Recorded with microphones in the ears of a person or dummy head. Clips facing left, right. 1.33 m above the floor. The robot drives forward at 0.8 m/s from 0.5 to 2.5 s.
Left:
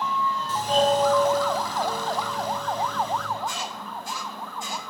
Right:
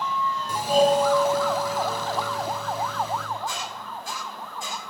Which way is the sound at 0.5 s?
10° right (ahead or behind).